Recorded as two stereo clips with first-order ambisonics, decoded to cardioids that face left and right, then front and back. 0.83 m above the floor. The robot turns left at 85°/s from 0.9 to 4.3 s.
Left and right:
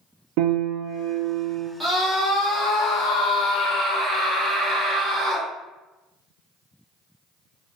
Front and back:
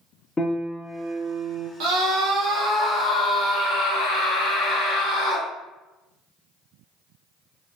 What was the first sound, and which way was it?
A piano, 80° right.